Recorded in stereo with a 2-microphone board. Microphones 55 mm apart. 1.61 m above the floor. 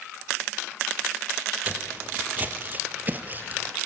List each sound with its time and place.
1.6 s footsteps: 30° right (ahead or behind), 3.5 m